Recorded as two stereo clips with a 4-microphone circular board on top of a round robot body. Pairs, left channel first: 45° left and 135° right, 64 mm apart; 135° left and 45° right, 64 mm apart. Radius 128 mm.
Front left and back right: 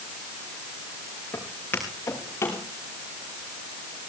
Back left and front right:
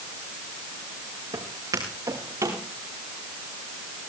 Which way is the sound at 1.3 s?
20° right.